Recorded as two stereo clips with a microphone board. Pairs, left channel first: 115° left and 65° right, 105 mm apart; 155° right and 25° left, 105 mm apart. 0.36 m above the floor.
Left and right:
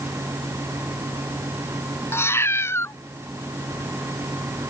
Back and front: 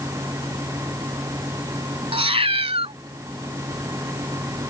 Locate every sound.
2.1 s a cat meowing: 45° left